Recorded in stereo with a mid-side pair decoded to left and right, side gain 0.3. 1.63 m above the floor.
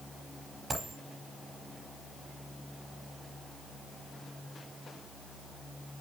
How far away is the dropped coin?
About 5 m.